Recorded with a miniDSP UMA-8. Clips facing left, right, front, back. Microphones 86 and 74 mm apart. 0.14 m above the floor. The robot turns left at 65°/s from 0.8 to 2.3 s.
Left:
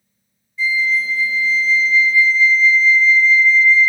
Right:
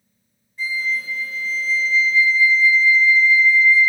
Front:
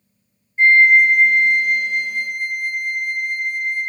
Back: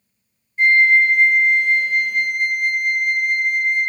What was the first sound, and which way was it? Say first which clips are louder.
A flute: left 6 dB, front 2 dB; 65° right.